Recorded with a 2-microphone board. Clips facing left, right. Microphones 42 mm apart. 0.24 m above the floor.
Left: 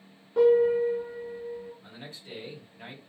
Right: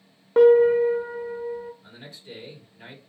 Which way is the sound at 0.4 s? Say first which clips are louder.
Right 6 dB; 75° right (ahead or behind).